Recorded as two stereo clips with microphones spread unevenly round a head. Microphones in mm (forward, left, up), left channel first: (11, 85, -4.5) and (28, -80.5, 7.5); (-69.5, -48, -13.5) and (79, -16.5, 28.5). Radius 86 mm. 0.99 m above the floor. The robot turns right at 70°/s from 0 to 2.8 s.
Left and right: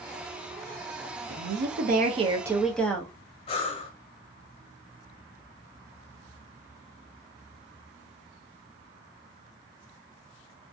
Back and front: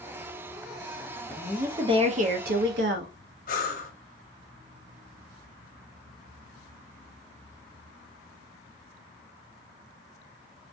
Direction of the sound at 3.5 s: 155° left.